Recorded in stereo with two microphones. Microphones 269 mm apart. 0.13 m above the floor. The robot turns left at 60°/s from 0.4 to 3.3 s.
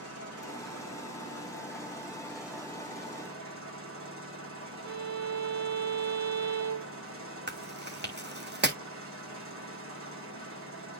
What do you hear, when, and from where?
0.0 s an engine running: 120° left, 7 m; by 11.0 s 55° right, 7 m
4.8 s a violin: 85° right, 3.5 m
7.5 s chewing: 40° right (ahead or behind), 1.6 m